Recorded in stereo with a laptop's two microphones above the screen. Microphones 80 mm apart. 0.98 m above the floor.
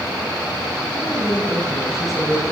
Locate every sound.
0.9 s a woman speaking: centre (ahead or behind), 6 m